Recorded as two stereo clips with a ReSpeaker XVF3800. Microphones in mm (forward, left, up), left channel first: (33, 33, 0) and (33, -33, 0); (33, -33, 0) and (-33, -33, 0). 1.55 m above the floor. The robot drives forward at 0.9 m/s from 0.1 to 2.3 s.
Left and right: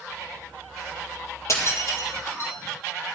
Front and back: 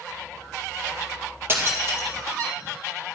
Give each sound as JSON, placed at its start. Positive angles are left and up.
{"t": 1.5, "sound": "breaking glass", "azimuth_deg": 125, "distance_m": 3.5}